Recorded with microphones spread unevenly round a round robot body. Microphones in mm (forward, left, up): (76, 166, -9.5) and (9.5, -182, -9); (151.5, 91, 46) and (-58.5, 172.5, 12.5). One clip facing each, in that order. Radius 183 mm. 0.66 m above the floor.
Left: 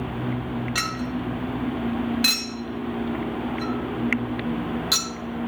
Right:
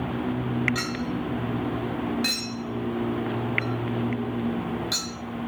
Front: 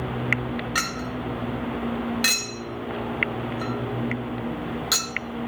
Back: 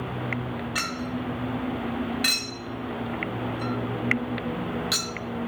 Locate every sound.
0.8 s a clink: 20° left, 1.3 m